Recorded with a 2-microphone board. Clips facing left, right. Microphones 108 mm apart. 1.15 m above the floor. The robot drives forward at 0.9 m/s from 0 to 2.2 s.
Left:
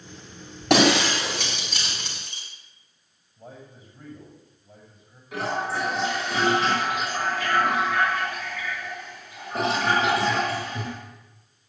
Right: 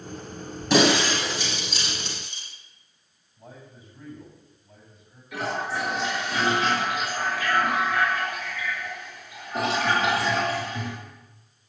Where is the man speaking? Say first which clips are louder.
Left 2 dB; 40° left (ahead or behind), 6.5 m.